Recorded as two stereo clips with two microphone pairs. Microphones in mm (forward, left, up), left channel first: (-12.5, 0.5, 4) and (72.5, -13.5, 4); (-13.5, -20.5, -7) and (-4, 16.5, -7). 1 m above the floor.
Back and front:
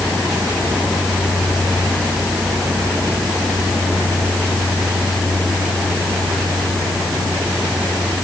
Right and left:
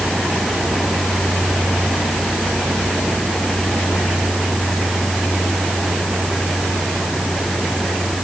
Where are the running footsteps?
No running footsteps in this recording.